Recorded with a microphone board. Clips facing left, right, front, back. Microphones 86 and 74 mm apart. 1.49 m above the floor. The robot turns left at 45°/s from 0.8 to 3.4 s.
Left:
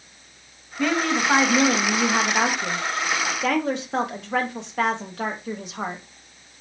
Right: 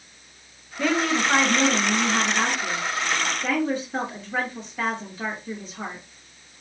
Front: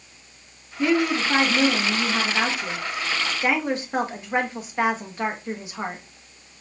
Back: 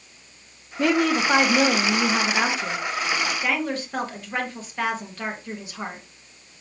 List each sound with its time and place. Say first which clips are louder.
0.8 s a woman speaking: even, back 1 dB; 175° right, 1.3 m; by 6.0 s 70° left, 1.3 m